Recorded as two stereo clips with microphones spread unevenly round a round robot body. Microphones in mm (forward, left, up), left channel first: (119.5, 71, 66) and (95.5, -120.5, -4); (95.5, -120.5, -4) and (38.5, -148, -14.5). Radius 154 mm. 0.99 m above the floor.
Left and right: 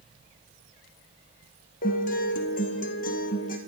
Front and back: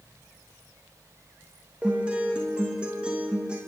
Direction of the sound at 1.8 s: 145° left.